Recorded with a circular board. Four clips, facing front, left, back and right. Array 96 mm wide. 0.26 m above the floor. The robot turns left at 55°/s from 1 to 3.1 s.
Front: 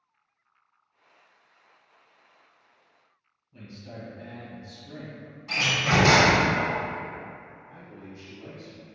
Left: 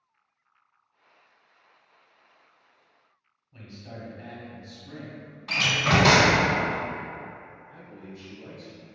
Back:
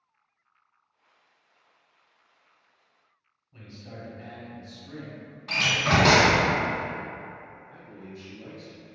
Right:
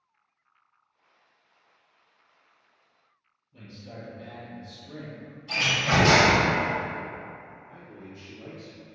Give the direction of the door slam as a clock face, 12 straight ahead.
8 o'clock.